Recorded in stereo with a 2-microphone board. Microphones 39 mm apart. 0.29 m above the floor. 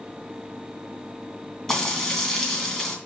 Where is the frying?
5° left (ahead or behind), 2.5 m.